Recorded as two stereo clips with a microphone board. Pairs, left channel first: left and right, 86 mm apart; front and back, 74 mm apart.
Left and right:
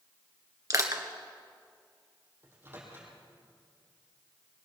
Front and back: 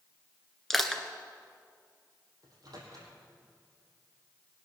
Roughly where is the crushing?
Right.